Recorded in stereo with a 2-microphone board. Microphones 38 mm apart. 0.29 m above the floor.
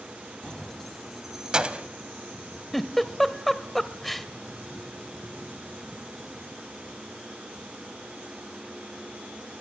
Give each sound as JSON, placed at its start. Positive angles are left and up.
{"t": 0.4, "sound": "keys jangling", "side_deg": 25, "distance_m": 1.1}
{"t": 2.7, "sound": "a giggle", "side_deg": 5, "distance_m": 0.8}